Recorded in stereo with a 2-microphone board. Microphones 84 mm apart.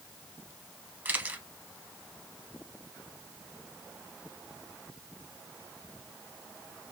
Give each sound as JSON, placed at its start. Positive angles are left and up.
{"t": 1.1, "sound": "a camera shutter", "side_deg": -20, "distance_m": 1.0}